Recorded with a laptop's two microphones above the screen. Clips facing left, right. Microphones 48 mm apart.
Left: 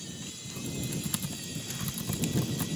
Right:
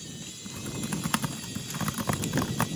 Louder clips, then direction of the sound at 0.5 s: Right 3 dB; 60° right (ahead or behind).